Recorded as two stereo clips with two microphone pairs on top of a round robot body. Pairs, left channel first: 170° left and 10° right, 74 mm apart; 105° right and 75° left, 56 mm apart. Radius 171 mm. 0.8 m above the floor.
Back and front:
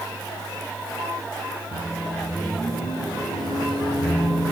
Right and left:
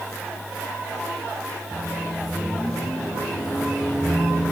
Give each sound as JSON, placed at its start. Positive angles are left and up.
{"t": 1.7, "sound": "a microwave", "azimuth_deg": 165, "distance_m": 9.5}